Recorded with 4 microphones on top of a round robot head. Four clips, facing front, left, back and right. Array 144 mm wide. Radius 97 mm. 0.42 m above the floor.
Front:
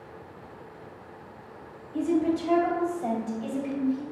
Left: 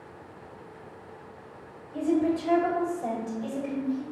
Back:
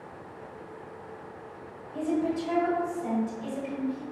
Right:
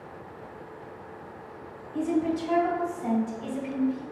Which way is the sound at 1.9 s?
80° left.